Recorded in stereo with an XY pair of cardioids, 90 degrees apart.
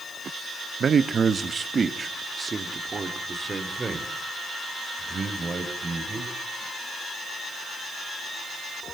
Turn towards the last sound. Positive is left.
turn(degrees=-35)